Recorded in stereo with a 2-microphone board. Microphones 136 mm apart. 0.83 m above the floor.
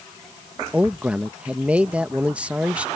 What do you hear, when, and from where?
0.7 s a man speaking: 10° right (ahead or behind)